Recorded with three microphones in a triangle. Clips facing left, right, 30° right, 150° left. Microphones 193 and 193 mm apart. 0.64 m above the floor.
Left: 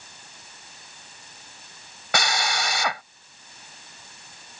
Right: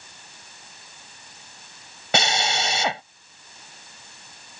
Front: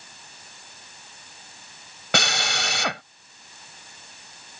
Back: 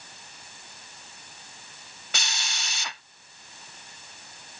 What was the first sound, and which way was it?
A drill, 25° right.